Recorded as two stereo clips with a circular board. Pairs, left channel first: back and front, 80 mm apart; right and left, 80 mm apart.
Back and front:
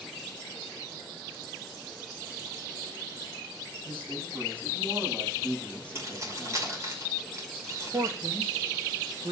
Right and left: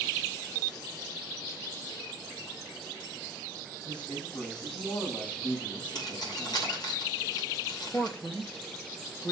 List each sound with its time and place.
3.9 s a man speaking: 70° right, 7.5 m
6.0 s keys jangling: 55° right, 6 m
7.9 s a man speaking: 25° right, 1.5 m